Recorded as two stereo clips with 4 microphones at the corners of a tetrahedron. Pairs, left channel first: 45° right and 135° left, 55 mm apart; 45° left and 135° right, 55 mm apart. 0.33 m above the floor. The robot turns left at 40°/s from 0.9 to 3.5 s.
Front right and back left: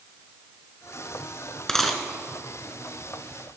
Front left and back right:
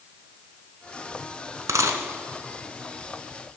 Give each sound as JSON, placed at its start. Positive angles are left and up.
{"t": 1.7, "sound": "a dropped coin", "azimuth_deg": -125, "distance_m": 0.9}